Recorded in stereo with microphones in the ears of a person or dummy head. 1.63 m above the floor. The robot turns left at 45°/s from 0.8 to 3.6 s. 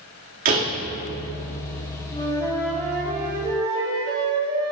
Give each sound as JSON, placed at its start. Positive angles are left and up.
{"t": 0.5, "sound": "a door slam", "side_deg": -45, "distance_m": 2.0}
{"t": 2.1, "sound": "a flute", "azimuth_deg": 35, "distance_m": 4.5}